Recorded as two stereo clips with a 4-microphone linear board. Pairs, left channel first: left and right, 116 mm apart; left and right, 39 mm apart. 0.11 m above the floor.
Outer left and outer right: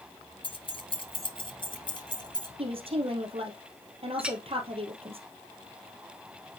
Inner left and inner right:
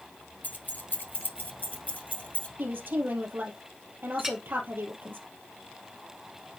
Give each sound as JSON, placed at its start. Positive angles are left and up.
{"t": 0.4, "sound": "keys jangling", "side_deg": 45, "distance_m": 1.2}
{"t": 2.6, "sound": "a woman speaking", "side_deg": -55, "distance_m": 2.5}
{"t": 4.2, "sound": "a clink", "side_deg": -10, "distance_m": 0.8}